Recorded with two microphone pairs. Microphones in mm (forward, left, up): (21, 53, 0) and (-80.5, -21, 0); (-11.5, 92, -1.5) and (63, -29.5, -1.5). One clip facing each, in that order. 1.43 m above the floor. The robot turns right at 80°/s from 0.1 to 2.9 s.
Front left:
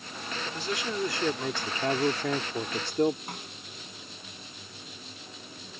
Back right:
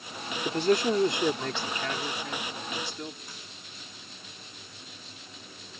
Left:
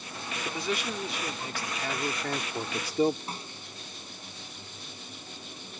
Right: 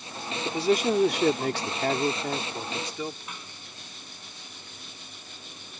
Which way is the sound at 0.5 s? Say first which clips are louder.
Back right 11 dB, right 10 dB; 130° right.